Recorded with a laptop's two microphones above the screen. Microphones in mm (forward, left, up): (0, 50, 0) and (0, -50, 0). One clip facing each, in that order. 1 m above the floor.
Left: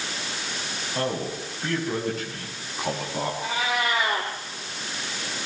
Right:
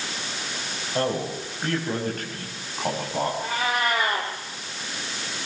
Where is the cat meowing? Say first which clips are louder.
Right 1 dB; 50° right (ahead or behind), 5.5 m.